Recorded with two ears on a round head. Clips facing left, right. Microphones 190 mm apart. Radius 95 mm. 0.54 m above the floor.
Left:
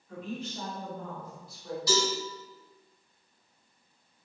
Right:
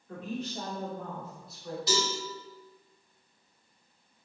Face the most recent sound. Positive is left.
turn(degrees=-15)  # may be behind; listen again after turning